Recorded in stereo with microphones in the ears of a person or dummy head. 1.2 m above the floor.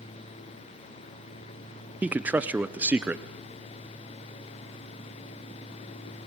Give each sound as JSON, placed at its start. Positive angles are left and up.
{"t": 2.0, "sound": "a man speaking", "side_deg": -10, "distance_m": 0.6}